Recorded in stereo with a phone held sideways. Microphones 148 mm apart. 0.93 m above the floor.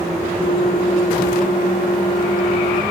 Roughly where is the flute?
Left.